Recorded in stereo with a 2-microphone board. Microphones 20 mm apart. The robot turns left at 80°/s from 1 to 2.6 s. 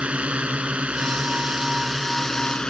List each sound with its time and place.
0.0 s a drone: 90° right; by 2.7 s 140° left